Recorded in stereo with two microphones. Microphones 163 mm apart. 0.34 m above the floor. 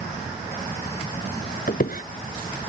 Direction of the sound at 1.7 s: 65° left (ahead or behind).